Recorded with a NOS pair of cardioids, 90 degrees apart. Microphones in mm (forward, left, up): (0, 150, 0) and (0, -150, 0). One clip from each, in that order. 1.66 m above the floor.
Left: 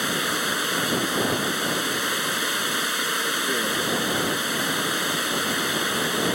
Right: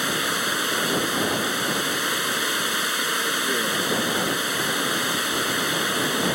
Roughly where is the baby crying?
No baby crying in this recording.